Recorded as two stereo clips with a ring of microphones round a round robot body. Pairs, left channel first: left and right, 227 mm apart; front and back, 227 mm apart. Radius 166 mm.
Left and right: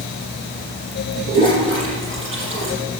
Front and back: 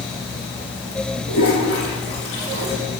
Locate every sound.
1.3 s a toilet flushing: 55° right, 6 m